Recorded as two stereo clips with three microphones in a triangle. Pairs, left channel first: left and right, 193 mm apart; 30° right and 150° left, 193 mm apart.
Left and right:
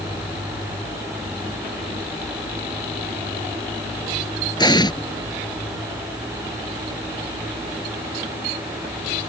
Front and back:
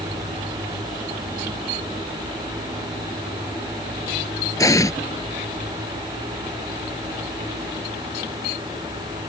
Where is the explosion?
35° left.